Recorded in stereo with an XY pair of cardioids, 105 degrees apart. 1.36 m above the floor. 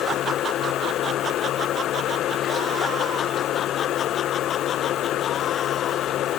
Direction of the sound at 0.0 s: 70° left.